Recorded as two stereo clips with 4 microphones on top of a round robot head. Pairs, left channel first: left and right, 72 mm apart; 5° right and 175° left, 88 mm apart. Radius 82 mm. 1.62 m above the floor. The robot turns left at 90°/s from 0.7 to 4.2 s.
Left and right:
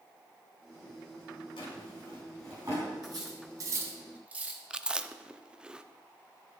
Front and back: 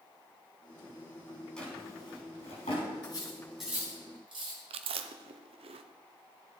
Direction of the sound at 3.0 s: 45° right.